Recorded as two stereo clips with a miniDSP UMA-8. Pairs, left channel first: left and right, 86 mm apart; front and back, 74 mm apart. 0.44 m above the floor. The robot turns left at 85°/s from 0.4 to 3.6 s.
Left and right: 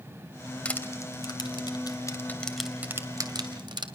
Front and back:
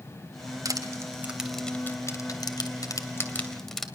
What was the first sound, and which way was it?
Crushing, 165° left.